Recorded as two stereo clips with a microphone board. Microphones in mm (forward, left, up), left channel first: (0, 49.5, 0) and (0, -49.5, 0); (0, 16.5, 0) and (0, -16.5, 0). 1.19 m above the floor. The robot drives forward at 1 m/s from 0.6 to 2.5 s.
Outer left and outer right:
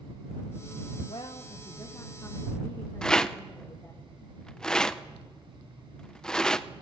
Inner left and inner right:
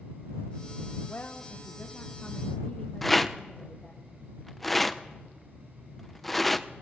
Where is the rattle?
5° left (ahead or behind), 0.6 m.